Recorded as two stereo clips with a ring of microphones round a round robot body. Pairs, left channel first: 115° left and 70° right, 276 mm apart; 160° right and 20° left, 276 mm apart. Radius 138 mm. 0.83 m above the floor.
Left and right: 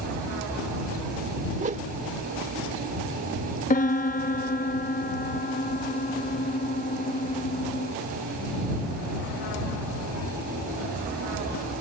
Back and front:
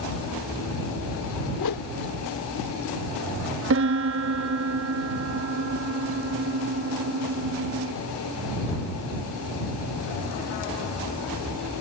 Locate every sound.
1.6 s a whoosh: 135° right
3.7 s a piano: 55° left